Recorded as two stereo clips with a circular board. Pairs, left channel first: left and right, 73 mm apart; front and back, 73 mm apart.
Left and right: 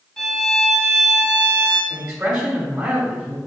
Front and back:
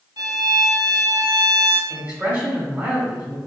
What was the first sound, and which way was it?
A violin, 170° left.